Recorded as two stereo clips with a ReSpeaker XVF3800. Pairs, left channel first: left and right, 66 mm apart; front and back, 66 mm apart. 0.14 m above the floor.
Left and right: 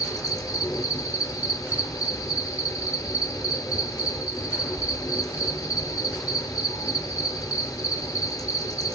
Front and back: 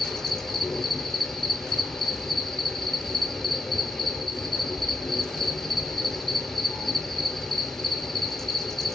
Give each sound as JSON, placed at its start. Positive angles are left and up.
{"t": 0.0, "sound": "an insect", "azimuth_deg": 80, "distance_m": 0.7}